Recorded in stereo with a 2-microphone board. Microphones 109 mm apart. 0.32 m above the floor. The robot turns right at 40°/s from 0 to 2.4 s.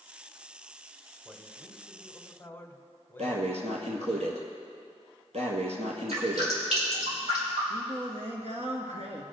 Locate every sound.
1.2 s a man speaking: 25° right, 1.4 m; by 4.2 s 25° left, 1.4 m
3.2 s breathing: 75° right (ahead or behind), 1.8 m
6.1 s dripping: 80° right, 5.5 m
7.7 s singing: 80° right, 1.8 m